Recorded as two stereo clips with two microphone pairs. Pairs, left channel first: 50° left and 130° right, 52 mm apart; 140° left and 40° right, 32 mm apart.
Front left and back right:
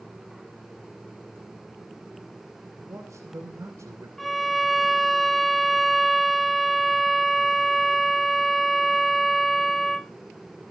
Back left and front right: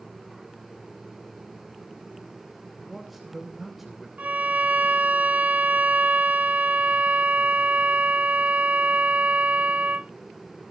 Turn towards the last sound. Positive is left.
turn(degrees=-40)